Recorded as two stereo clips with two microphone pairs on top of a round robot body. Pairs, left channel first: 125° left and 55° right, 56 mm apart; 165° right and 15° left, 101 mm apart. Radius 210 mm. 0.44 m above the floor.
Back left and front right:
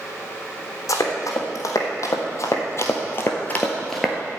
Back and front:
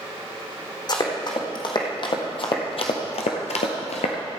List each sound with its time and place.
0.9 s running footsteps: 145° left, 2.5 m; by 4.2 s 135° right, 0.7 m